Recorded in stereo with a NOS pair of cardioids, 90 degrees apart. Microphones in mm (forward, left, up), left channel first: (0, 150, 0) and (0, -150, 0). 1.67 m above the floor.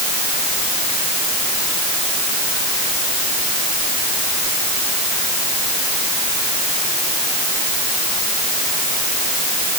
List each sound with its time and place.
Only background noise.